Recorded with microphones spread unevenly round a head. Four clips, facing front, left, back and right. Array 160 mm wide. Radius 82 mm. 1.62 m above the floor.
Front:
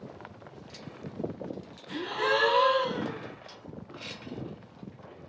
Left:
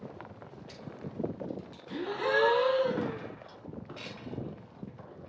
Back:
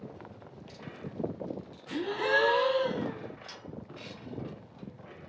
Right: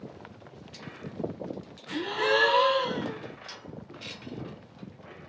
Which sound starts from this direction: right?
A gasp, at 1.9 s.